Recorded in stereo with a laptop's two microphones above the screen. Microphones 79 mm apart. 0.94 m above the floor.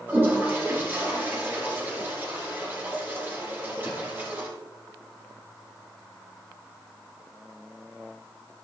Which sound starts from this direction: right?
A toilet flushing, at 0.1 s.